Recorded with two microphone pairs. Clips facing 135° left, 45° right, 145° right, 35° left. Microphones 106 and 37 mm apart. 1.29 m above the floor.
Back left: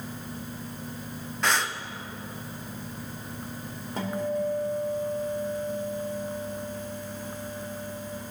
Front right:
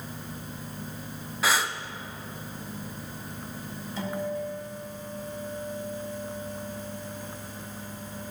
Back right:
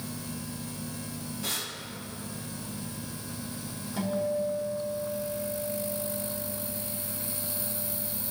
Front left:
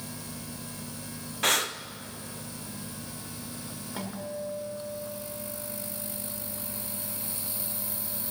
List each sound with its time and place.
1.4 s breathing: 40° left, 0.6 m
4.0 s a guitar: 100° left, 3.5 m